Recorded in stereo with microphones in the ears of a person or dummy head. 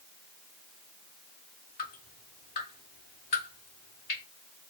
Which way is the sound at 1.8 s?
35° left (ahead or behind).